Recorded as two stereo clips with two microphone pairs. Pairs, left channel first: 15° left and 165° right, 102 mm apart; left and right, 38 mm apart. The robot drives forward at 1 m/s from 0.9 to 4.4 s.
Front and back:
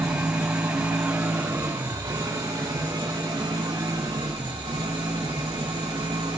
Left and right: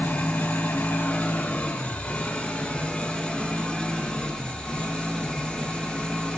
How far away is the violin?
No violin in this recording.